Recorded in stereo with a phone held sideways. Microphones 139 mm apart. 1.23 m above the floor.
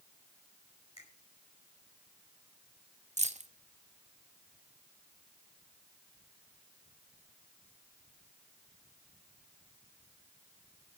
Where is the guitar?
No guitar in this recording.